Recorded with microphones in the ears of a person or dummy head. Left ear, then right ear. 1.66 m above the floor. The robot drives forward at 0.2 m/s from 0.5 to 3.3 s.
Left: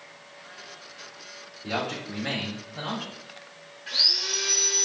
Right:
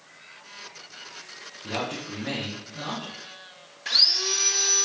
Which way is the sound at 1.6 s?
80° left.